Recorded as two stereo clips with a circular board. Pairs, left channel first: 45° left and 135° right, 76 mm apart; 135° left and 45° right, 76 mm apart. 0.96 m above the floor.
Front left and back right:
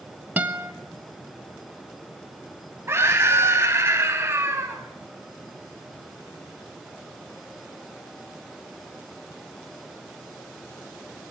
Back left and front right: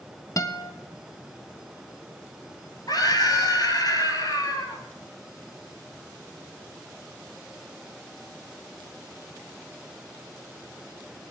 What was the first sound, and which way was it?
A guitar, 160° left.